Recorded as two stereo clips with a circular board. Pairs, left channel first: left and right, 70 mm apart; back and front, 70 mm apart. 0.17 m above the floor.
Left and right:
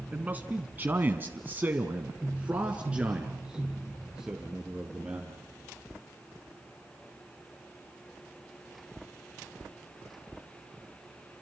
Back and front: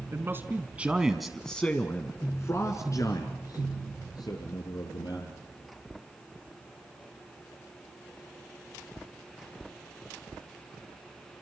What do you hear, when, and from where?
0.1 s a man speaking: 30° right, 2.0 m; by 5.4 s 170° right, 4.5 m